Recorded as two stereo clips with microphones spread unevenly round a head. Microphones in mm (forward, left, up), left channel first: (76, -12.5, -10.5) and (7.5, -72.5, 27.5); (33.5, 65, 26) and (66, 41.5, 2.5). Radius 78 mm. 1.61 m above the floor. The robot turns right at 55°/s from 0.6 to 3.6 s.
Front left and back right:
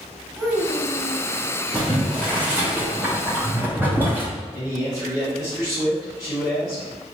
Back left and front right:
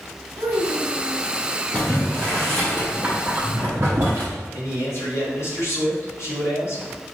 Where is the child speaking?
70° right, 1.2 m; by 1.2 s 35° right, 1.2 m.